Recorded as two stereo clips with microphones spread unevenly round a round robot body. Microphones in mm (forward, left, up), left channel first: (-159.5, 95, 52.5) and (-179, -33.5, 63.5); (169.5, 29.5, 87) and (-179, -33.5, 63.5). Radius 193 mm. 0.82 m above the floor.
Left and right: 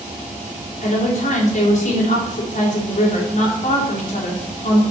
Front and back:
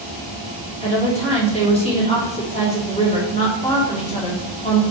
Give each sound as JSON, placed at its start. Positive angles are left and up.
{"t": 0.8, "sound": "a woman speaking", "azimuth_deg": 85, "distance_m": 2.5}